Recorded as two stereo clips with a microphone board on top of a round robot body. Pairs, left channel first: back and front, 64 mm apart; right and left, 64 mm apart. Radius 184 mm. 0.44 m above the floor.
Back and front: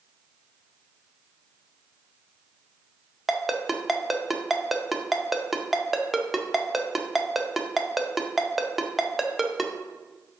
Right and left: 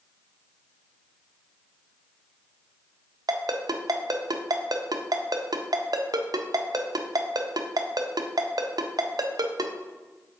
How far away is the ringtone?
About 0.6 m.